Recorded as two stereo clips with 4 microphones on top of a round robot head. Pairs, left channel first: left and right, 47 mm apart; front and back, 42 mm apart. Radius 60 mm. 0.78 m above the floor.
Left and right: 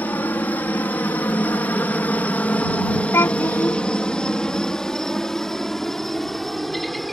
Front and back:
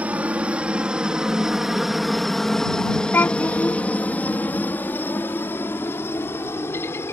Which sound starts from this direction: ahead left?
A child speaking, at 3.1 s.